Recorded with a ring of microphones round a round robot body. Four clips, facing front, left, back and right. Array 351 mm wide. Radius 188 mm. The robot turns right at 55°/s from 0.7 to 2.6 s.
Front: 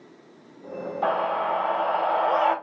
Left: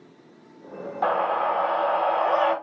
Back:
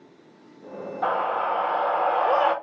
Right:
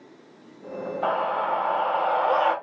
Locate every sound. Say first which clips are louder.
1.0 s a scream: left 2 dB, even; 95° left, 3 m; by 2.5 s 175° left, 3 m